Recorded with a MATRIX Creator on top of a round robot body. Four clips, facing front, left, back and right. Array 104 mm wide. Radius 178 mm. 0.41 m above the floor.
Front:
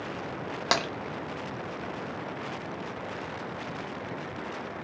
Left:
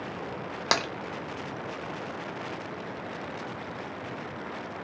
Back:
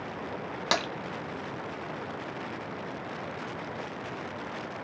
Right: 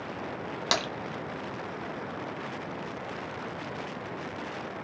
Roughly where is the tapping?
Ahead left.